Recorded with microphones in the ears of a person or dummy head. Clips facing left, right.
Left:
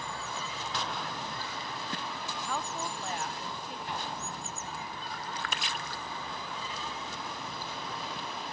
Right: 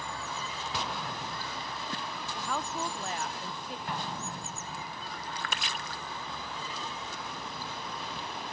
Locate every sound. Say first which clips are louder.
0.7 s an explosion: even; 5° right (ahead or behind), 0.7 m
2.4 s a woman speaking: right 2 dB; 50° right (ahead or behind), 0.7 m
3.9 s an explosion: right 2 dB; 60° right (ahead or behind), 2.5 m